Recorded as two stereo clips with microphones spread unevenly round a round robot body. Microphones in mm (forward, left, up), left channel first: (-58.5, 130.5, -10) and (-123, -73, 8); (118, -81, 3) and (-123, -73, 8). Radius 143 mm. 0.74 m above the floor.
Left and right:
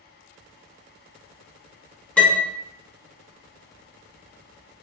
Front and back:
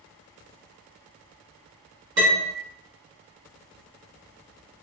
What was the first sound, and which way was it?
A piano, 150° left.